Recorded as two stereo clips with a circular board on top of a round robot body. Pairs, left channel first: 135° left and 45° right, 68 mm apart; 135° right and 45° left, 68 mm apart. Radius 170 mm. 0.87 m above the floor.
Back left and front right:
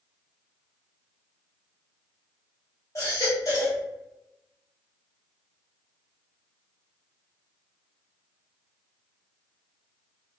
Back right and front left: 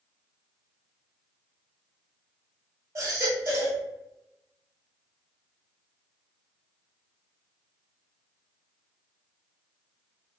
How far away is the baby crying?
About 2 m.